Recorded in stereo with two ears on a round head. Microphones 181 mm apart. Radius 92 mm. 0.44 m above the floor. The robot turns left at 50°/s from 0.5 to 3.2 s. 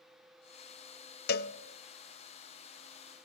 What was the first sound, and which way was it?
A cowbell, 50° left (ahead or behind).